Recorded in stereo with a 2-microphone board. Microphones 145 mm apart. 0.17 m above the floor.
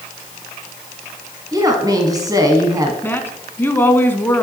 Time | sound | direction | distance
1.5 | a woman speaking | 25° right (ahead or behind) | 1.4 m
3.0 | a woman speaking | 15° left (ahead or behind) | 1.3 m